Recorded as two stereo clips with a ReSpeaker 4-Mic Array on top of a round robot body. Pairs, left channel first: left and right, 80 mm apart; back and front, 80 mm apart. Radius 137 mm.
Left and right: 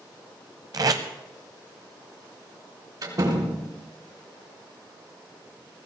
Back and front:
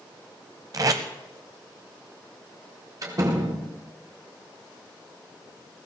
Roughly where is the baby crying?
No baby crying in this recording.